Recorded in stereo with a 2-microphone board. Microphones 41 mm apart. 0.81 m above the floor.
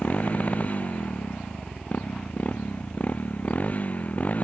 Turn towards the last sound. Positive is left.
turn(degrees=40)  # may be behind; listen again after turning